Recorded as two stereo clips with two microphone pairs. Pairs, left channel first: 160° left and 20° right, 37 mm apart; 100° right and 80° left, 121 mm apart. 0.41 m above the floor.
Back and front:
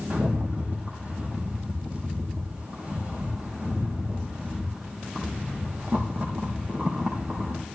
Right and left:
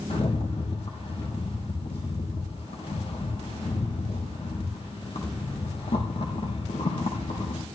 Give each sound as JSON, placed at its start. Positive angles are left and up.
{"t": 0.1, "sound": "a rattle", "azimuth_deg": -70, "distance_m": 5.0}